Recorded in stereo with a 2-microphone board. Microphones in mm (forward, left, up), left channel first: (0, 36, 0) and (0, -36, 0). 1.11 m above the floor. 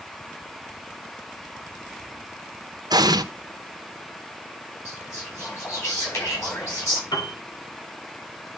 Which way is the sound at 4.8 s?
45° left (ahead or behind).